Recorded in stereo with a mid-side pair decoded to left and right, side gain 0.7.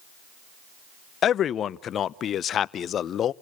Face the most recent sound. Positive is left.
turn(degrees=40)